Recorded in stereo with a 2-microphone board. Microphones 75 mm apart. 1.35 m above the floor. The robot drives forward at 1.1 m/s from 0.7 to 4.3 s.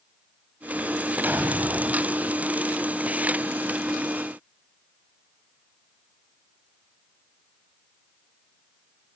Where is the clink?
I don't hear a clink.